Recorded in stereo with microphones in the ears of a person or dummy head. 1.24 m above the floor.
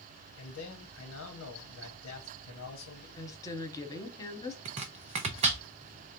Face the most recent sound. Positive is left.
turn(degrees=-30)  # may be behind; listen again after turning